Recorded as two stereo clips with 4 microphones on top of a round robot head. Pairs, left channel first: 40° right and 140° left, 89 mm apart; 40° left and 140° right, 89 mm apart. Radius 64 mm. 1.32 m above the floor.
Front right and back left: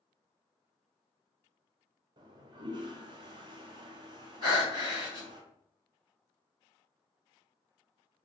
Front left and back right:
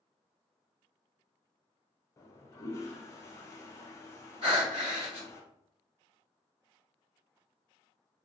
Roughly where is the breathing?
Behind.